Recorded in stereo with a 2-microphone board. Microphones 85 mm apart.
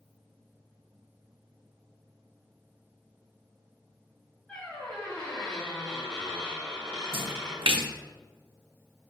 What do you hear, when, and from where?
4.5 s a squeak: 15° left (ahead or behind), 2.5 m
7.1 s a splash: 75° right (ahead or behind), 0.7 m